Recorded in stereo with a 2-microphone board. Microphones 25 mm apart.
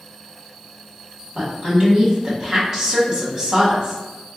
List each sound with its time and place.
1.4 s a woman speaking: 30° right (ahead or behind), 1.4 m